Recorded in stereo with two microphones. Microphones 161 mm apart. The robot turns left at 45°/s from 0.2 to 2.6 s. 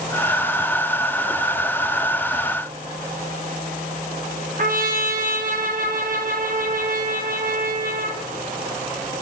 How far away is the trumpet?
About 0.8 m.